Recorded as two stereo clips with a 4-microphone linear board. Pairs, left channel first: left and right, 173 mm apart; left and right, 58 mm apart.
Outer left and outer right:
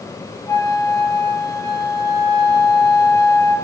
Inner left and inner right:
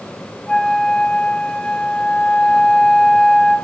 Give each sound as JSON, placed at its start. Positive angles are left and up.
{"t": 0.5, "sound": "a flute", "side_deg": 20, "distance_m": 1.3}